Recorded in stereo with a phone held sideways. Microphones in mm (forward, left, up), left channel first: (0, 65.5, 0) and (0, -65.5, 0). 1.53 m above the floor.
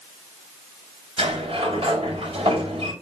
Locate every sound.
1.2 s a sliding door: 50° right (ahead or behind), 4.5 m